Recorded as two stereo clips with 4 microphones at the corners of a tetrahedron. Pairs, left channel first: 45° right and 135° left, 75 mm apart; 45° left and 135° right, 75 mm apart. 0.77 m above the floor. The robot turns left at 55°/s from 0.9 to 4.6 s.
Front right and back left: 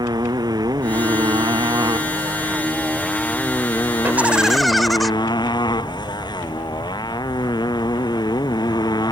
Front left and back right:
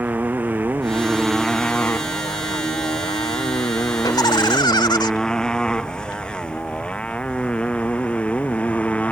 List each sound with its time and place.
0.0 s a motorcycle: 155° left; by 9.1 s 25° right
4.0 s laughter: 75° left; by 5.1 s 45° left